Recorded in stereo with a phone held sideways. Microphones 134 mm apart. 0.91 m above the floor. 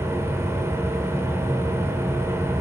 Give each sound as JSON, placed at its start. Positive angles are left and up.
{"t": 0.0, "sound": "a machine running", "side_deg": -20, "distance_m": 3.5}